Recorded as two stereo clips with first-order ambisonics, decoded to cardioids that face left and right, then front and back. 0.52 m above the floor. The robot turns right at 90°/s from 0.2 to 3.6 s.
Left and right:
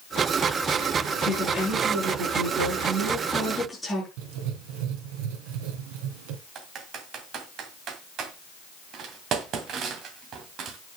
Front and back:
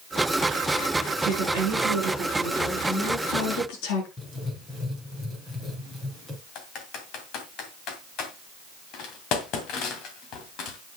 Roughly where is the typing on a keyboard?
Ahead right.